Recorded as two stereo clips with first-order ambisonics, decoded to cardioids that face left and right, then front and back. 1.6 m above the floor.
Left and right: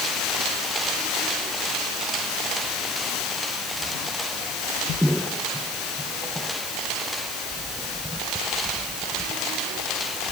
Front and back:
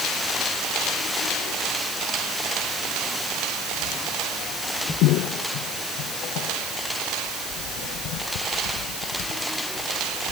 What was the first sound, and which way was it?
Only background noise.